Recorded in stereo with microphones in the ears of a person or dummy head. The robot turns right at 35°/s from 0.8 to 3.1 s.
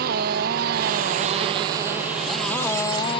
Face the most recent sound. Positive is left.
turn(degrees=25)